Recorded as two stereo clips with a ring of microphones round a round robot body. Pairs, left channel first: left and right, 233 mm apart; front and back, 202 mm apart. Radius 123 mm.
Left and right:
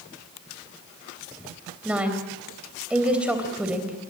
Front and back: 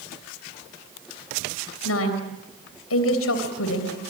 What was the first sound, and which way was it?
A woman speaking, 5° right.